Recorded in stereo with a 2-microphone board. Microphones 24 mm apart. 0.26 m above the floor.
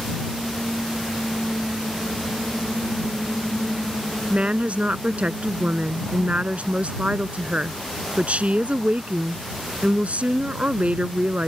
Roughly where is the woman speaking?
Right.